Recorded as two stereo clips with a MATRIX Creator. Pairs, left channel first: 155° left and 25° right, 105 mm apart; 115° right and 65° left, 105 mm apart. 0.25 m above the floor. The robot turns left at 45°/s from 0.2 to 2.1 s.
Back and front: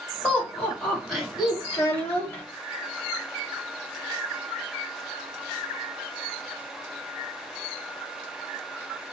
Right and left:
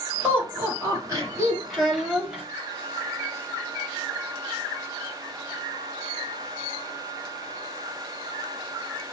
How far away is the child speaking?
About 0.6 m.